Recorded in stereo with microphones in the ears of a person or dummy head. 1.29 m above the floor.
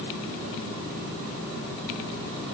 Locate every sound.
Only background noise.